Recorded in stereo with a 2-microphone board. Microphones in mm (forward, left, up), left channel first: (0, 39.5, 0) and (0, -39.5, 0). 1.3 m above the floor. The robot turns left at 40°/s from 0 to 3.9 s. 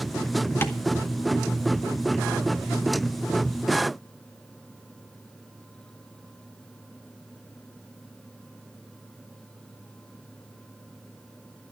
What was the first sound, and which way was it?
Tapping, 30° left (ahead or behind).